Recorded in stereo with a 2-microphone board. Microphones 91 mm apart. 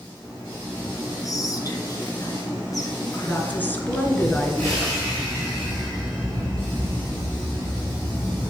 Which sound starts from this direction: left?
Whispering, at 1.2 s.